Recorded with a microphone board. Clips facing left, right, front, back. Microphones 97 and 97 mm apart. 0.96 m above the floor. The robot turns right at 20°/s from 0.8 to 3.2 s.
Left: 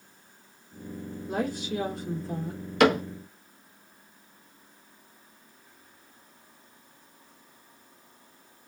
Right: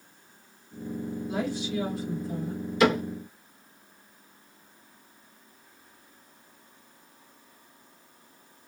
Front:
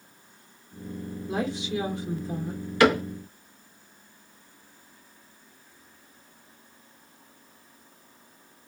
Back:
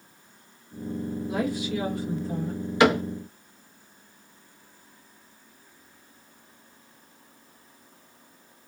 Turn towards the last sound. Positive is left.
turn(degrees=120)